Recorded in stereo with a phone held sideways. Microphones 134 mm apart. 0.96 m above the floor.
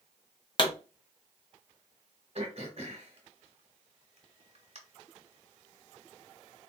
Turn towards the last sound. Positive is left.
turn(degrees=-50)  # may be behind; listen again after turning